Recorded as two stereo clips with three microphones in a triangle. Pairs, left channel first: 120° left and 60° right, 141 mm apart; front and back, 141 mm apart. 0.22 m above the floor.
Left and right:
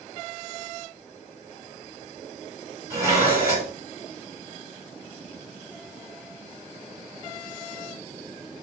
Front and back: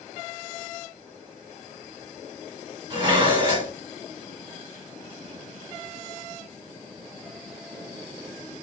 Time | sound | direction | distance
2.9 | dishes clattering | 125° right | 1.7 m